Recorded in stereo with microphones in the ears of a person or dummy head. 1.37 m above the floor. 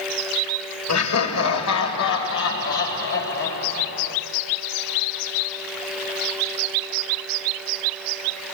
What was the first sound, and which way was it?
Laughter, 80° left.